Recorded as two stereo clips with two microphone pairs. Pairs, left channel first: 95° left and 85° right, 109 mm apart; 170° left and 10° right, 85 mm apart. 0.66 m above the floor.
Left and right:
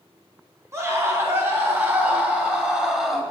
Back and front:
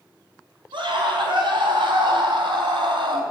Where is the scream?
20° right, 3.5 m; by 3.2 s 5° left, 2.5 m.